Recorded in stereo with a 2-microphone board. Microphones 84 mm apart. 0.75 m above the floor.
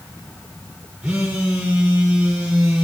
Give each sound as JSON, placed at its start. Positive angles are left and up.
{"t": 1.0, "sound": "a phone buzzing", "side_deg": -10, "distance_m": 6.0}